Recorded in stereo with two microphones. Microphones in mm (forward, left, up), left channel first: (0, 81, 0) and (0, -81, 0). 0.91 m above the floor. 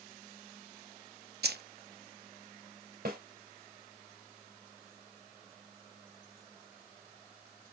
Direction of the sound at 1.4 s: 85° right.